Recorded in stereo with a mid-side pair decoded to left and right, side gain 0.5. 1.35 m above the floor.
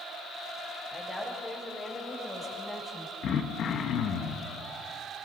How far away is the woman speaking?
About 8.5 m.